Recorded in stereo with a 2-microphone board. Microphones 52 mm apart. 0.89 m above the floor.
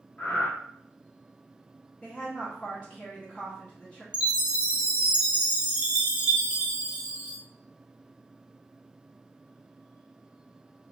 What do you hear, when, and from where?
0.2 s breathing: 35° left (ahead or behind), 0.7 m
2.0 s a woman speaking: 20° left (ahead or behind), 0.8 m
4.1 s a chime: 20° right (ahead or behind), 0.8 m